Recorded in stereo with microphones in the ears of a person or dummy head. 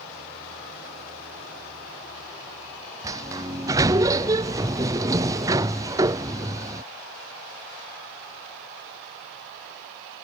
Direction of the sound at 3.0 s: 15° right (ahead or behind).